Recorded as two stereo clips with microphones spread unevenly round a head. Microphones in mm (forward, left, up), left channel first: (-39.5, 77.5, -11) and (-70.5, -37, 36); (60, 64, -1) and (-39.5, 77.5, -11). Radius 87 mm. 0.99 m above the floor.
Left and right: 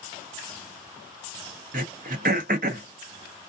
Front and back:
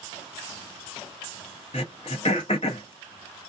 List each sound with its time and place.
1.7 s throat clearing: 65° right, 0.6 m